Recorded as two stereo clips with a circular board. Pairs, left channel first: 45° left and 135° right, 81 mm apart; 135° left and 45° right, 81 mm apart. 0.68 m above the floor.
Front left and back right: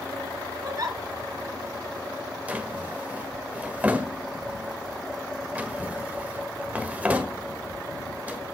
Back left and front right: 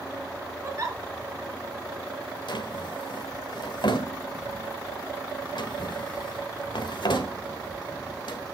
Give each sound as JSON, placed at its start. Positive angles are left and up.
{"t": 0.6, "sound": "a giggle", "azimuth_deg": -95, "distance_m": 2.0}
{"t": 2.5, "sound": "a drawer", "azimuth_deg": 155, "distance_m": 1.5}